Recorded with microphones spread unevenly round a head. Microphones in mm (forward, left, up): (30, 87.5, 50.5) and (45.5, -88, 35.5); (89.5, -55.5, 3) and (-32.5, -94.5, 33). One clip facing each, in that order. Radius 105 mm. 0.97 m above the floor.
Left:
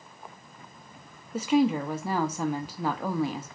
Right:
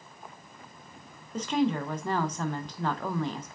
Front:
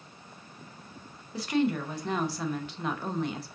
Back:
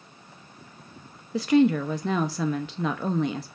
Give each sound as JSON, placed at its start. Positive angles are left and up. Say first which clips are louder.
{"t": 1.3, "sound": "a woman speaking", "louder": "left 4 dB, back 8 dB", "azimuth_deg": 180, "distance_m": 0.6}